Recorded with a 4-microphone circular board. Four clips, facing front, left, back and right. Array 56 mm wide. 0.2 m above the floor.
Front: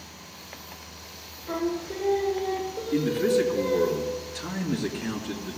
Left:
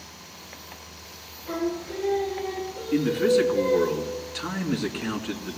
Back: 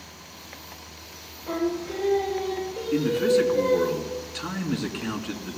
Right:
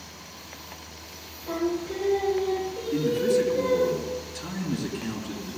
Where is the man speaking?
135° left, 2 m.